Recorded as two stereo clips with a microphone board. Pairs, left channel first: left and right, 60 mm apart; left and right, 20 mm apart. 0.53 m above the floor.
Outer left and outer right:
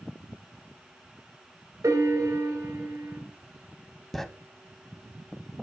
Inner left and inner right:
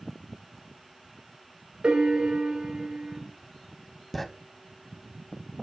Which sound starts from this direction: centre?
Writing, at 4.1 s.